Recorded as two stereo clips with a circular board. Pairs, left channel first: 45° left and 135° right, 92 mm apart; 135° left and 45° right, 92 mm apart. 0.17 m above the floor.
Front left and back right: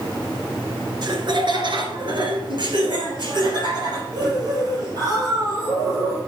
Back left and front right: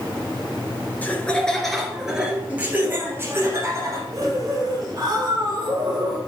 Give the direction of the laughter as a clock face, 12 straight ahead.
5 o'clock.